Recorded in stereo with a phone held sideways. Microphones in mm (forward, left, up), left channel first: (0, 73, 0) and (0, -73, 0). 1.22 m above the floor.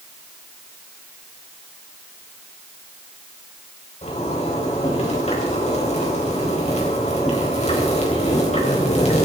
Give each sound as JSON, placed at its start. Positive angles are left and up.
{"t": 4.0, "sound": "a zipper", "side_deg": 50, "distance_m": 4.0}